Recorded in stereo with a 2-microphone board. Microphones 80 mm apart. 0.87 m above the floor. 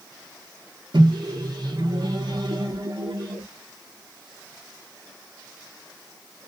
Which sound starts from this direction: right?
A microwave, at 0.9 s.